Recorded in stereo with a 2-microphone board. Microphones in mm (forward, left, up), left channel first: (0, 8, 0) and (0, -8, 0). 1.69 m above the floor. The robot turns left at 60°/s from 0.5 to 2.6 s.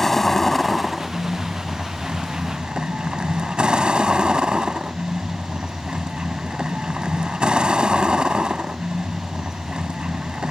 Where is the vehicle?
15° left; by 10.5 s 110° right.